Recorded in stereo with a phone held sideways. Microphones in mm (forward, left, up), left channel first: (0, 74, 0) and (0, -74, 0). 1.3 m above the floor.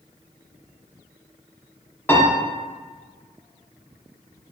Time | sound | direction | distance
2.1 | a piano | 15° left (ahead or behind) | 1.1 m